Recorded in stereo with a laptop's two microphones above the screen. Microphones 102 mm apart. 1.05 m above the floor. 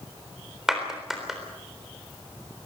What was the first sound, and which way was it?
A clap, 5° right (ahead or behind).